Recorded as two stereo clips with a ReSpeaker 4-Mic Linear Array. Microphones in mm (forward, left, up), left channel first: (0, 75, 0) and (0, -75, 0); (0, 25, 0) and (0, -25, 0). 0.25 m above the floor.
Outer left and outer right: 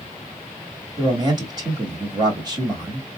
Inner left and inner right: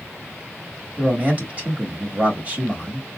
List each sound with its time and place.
1.0 s a man speaking: 30° right (ahead or behind), 1.4 m